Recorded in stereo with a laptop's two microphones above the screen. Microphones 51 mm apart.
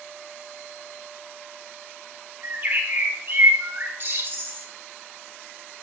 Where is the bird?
50° right (ahead or behind), 2 m.